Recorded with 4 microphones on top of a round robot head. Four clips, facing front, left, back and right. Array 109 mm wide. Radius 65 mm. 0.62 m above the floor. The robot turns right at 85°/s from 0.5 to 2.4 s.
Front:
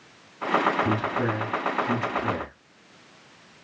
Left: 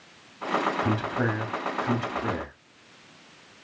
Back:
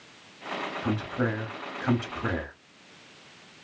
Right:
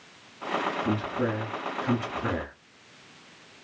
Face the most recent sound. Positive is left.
turn(degrees=-150)